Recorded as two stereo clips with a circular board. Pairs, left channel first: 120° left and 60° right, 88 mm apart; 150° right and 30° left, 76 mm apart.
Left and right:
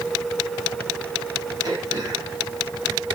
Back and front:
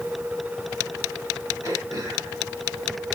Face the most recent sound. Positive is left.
turn(degrees=-15)